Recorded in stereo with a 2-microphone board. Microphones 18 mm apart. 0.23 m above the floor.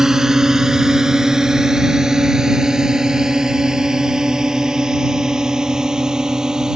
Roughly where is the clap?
I don't hear a clap.